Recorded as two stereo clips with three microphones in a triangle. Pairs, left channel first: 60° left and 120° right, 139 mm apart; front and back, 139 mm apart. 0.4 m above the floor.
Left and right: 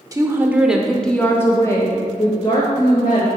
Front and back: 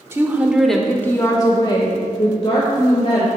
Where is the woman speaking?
140° right, 0.8 m; by 3.3 s 25° left, 1.5 m.